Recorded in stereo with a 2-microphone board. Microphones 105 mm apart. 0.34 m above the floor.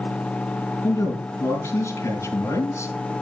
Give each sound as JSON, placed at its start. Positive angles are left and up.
{"t": 0.8, "sound": "a man speaking", "side_deg": 25, "distance_m": 5.0}